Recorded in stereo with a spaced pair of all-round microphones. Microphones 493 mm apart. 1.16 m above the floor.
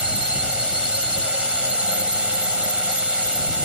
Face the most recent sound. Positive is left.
turn(degrees=80)